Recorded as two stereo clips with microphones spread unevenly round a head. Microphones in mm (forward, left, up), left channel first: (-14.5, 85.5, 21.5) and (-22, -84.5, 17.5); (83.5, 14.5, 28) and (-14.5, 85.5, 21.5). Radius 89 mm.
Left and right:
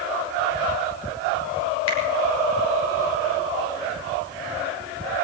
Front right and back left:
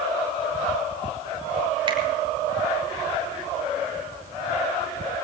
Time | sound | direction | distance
1.9 | a finger snap | 95° left | 5 m